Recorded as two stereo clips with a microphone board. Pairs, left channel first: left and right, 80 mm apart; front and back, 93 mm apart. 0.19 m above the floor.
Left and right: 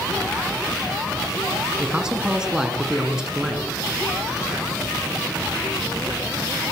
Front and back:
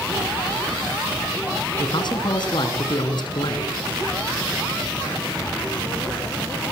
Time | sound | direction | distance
1.8 | a man speaking | 10° right | 2.5 m